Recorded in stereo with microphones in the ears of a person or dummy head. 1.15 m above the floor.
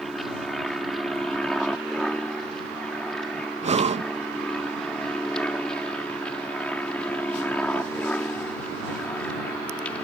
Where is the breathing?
30° right (ahead or behind).